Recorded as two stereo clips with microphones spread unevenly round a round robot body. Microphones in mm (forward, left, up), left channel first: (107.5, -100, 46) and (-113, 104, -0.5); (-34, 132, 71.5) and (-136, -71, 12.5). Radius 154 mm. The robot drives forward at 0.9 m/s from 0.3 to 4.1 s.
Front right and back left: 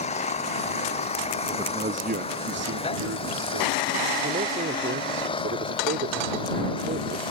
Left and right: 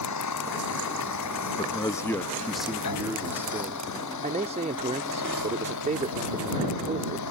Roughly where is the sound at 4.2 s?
Behind.